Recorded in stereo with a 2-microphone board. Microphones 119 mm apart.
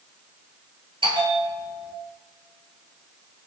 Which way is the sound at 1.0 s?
45° right (ahead or behind).